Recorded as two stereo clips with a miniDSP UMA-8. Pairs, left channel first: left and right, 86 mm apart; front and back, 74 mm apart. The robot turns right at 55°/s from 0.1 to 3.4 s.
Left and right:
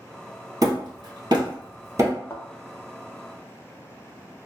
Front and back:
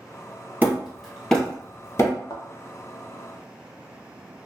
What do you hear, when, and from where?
0.6 s hammering: 120° right, 2.0 m; by 2.1 s 35° right, 2.0 m
2.3 s a thud: 30° left, 0.9 m; by 2.5 s 40° left, 0.9 m